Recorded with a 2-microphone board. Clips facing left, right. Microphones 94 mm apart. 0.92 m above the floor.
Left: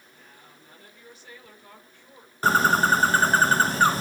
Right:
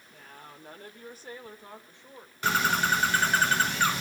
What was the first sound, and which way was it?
A woman speaking, 65° right (ahead or behind).